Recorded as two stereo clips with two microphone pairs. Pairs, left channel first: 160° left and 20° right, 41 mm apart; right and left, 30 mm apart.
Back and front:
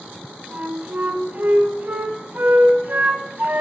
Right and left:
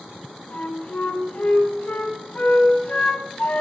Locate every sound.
0.5 s a flute: 65° right, 1.5 m